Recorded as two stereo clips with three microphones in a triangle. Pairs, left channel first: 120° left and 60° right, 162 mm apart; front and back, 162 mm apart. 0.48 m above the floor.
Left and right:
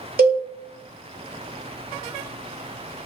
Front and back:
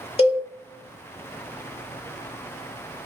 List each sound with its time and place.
0.2 s a cowbell: 50° right, 1.0 m